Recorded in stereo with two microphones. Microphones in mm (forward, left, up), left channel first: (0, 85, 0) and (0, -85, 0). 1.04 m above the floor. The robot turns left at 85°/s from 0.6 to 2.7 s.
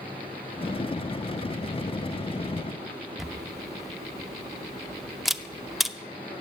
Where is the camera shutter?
Centre (ahead or behind), 0.6 m.